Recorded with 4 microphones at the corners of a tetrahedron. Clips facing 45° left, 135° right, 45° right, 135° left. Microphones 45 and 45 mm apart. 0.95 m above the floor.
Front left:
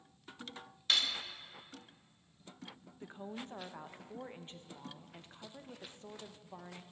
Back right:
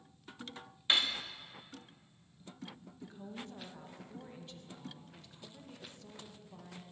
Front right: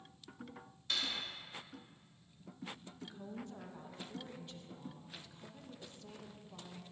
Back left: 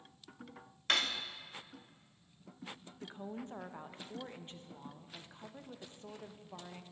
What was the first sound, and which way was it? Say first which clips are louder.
Cutlery clinking: back right 2 dB, back left 6 dB; 160° left.